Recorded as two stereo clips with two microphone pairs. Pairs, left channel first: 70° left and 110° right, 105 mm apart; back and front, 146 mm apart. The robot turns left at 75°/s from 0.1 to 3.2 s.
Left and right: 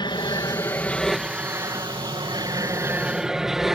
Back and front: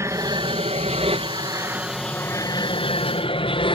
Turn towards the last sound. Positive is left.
turn(degrees=160)